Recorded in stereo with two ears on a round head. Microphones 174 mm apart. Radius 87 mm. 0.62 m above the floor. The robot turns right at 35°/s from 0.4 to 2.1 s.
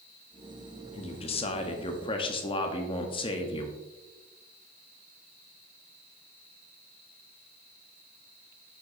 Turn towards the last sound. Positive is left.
turn(degrees=115)